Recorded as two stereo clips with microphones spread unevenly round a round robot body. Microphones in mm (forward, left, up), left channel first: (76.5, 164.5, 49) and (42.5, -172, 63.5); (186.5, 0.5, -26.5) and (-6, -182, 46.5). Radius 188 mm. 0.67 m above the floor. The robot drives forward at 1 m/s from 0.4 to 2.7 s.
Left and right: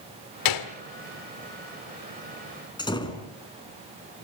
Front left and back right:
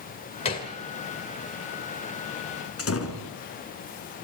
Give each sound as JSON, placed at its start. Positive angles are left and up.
{"t": 0.5, "sound": "a gunshot", "azimuth_deg": 115, "distance_m": 1.8}
{"t": 2.8, "sound": "a door slam", "azimuth_deg": 5, "distance_m": 5.0}